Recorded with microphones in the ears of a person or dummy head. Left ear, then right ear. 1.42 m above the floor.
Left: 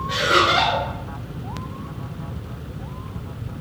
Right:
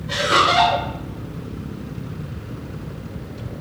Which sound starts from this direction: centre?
Laughter, at 0.1 s.